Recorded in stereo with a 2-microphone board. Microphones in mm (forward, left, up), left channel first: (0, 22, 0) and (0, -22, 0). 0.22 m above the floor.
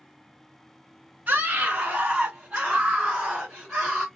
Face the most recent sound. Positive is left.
turn(degrees=-10)  # may be behind; listen again after turning